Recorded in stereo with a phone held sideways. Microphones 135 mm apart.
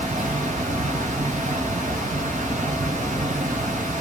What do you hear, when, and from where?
0.0 s a fan: 70° right (ahead or behind), 1.8 m